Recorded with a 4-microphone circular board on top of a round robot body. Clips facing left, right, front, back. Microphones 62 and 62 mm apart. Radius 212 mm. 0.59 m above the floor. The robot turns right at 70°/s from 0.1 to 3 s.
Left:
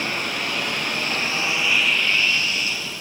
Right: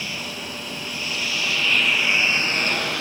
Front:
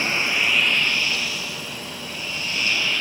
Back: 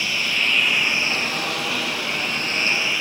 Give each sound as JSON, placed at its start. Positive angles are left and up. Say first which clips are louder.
{"t": 0.0, "sound": "a lawn mower", "louder": "left 6 dB, front 1 dB", "azimuth_deg": 55}